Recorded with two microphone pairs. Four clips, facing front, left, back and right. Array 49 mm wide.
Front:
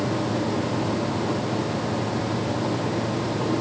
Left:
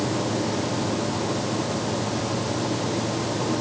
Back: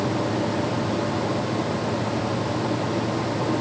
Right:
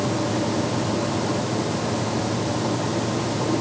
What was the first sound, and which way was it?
Only background noise.